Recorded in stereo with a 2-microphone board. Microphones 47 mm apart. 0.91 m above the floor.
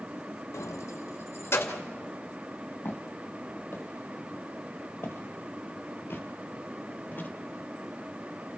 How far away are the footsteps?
About 2 m.